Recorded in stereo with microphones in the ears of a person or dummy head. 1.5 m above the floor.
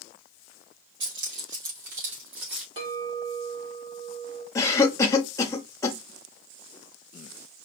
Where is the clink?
40° right (ahead or behind), 1.8 m.